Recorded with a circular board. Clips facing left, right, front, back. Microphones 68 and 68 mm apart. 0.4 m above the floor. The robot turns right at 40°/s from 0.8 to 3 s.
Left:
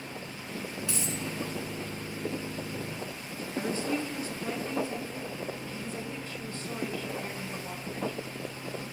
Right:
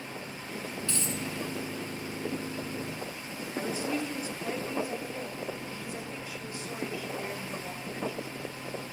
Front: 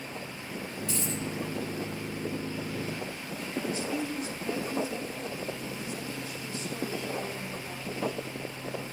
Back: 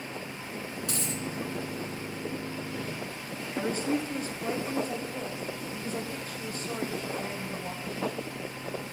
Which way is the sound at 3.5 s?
160° right.